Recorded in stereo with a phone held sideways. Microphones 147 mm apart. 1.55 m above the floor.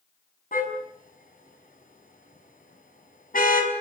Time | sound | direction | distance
0.5 | a car horn | 70° left (ahead or behind) | 5.5 m